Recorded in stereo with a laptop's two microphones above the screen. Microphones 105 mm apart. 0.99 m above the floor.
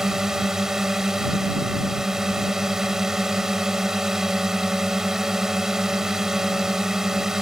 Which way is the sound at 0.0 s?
5° right (ahead or behind).